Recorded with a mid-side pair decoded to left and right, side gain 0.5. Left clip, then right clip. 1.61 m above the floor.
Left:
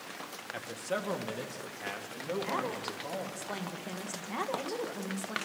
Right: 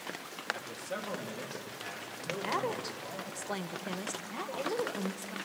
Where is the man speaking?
30° left, 1.9 m; by 3.3 s 55° left, 4 m.